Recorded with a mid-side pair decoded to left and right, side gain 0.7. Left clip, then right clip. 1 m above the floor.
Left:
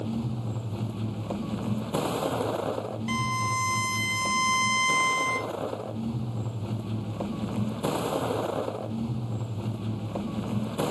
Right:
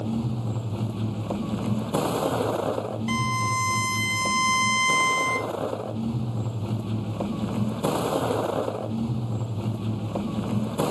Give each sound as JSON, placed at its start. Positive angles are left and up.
{"t": 0.0, "sound": "a vehicle", "azimuth_deg": -15}
{"t": 3.1, "sound": "a violin", "azimuth_deg": -10}